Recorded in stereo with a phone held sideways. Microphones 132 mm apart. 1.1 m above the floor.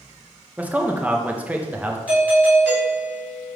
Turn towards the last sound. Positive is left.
turn(degrees=-10)  # may be behind; listen again after turning